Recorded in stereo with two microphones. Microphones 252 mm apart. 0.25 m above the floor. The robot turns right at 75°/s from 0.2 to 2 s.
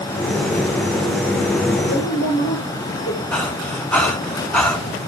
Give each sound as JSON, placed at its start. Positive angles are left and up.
{"t": 1.9, "sound": "a woman speaking", "side_deg": 70, "distance_m": 4.0}
{"t": 3.3, "sound": "breathing", "side_deg": 5, "distance_m": 2.5}